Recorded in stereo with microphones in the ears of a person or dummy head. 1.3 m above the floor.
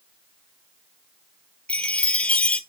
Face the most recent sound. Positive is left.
turn(degrees=10)  # may be behind; listen again after turning